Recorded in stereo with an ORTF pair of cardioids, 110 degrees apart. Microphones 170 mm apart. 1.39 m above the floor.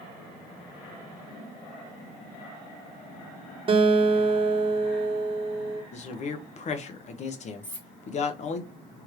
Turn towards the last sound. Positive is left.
turn(degrees=10)